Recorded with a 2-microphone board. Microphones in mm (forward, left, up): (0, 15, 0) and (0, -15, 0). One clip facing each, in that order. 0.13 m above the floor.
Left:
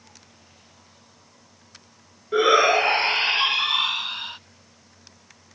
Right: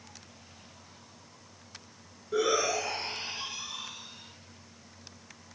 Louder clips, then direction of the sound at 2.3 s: Left 11 dB; 45° left (ahead or behind).